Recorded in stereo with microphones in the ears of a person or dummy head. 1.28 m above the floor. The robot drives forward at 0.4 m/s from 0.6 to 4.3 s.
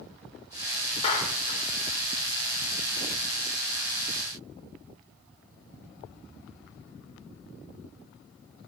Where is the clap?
40° left (ahead or behind), 4 m.